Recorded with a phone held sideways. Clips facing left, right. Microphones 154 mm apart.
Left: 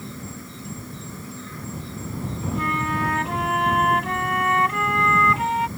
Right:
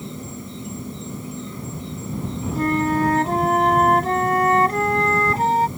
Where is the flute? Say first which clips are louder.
Right 8 dB; 35° right (ahead or behind).